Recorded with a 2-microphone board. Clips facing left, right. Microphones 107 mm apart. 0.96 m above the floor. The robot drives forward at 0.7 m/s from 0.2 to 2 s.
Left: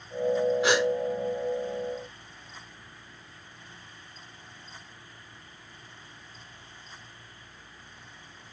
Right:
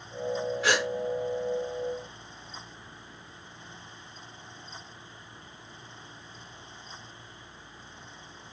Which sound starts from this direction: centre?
A gasp, at 0.6 s.